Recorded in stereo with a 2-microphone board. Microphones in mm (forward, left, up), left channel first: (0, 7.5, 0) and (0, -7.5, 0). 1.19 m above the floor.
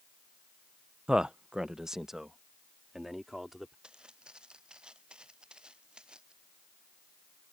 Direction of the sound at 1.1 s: 50° right (ahead or behind).